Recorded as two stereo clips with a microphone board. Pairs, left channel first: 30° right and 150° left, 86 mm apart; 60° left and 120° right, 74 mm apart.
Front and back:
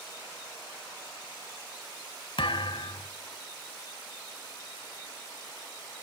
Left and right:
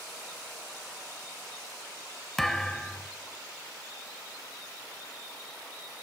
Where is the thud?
25° right, 1.5 m.